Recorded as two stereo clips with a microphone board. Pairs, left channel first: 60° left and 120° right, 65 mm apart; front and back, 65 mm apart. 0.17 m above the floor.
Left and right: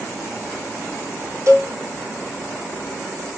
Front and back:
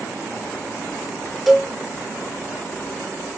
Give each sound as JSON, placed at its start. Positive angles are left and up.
{"t": 1.5, "sound": "a cowbell", "azimuth_deg": -95, "distance_m": 0.7}